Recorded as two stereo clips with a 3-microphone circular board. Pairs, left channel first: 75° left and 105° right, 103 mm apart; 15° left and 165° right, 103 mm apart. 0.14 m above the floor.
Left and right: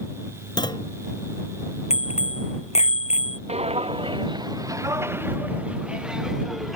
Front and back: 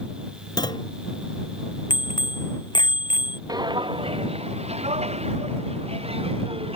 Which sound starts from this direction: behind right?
Footsteps, at 3.5 s.